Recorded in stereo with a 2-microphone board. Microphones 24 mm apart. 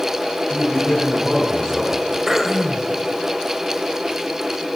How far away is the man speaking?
About 2.5 m.